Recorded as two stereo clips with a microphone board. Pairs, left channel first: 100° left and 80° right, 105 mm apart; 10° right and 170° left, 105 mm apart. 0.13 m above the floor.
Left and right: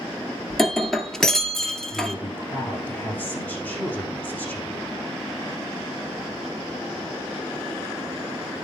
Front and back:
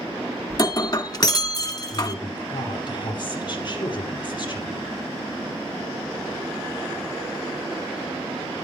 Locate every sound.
0.5 s breaking glass: 15° left, 0.9 m
1.9 s a woman speaking: 25° left, 4 m